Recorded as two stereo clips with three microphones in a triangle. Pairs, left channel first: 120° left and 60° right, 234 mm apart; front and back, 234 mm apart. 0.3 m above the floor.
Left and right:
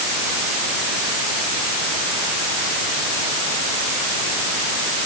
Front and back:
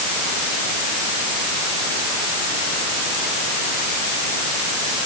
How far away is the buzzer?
No buzzer in this recording.